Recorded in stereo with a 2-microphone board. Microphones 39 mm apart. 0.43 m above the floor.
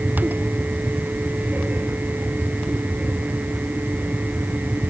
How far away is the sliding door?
I don't hear a sliding door.